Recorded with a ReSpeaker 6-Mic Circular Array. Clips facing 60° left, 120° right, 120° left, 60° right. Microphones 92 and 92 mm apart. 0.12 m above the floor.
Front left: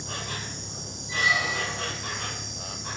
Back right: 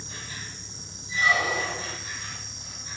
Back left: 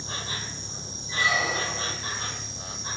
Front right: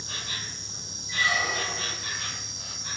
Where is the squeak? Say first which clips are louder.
Back right 2 dB, back left 2 dB; 170° right, 3 m.